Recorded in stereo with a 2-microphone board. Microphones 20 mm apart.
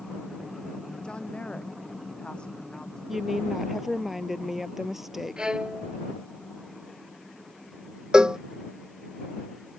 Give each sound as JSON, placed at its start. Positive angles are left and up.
{"t": 1.0, "sound": "a woman speaking", "side_deg": 55}
{"t": 3.1, "sound": "a woman speaking", "side_deg": -20}
{"t": 5.4, "sound": "a violin", "side_deg": -50}
{"t": 8.1, "sound": "a cowbell", "side_deg": -50}